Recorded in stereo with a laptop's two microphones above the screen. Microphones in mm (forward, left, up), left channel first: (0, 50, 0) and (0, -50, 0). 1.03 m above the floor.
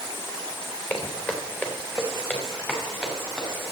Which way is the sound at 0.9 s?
15° left (ahead or behind).